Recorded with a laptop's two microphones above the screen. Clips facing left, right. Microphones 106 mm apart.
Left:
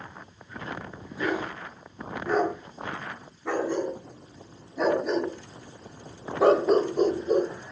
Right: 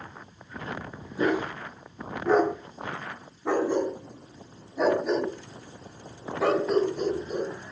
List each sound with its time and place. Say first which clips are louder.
1.2 s a dog barking: right 3 dB; 30° right (ahead or behind), 6.5 m; by 7.7 s 65° left (ahead or behind), 2.5 m